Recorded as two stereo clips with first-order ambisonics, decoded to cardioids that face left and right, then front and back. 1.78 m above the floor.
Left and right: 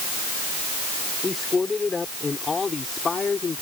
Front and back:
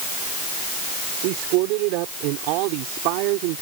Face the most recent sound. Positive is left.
turn(degrees=165)